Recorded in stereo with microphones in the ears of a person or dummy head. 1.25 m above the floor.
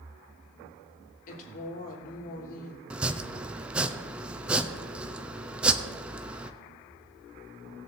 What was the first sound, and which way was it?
A woman speaking, 45° left (ahead or behind).